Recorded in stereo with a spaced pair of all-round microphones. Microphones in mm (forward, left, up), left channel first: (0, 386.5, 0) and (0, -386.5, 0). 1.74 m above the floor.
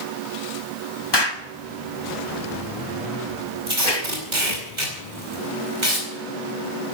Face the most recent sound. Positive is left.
turn(degrees=-70)  # may be behind; listen again after turning